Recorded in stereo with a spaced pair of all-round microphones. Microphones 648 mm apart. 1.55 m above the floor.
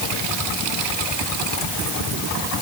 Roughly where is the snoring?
No snoring in this recording.